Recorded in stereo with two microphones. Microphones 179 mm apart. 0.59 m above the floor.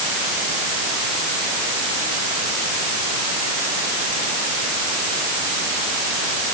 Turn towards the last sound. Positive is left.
No sound to turn to.